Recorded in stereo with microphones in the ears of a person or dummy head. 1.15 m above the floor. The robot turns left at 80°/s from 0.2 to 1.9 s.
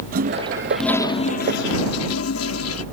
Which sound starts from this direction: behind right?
A toilet flushing, at 0.1 s.